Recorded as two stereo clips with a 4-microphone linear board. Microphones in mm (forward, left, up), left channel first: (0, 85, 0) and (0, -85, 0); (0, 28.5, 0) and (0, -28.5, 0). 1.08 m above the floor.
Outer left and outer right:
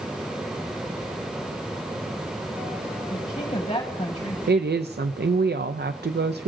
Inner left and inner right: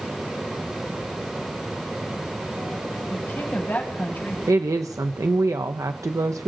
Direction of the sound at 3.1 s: 40° left (ahead or behind).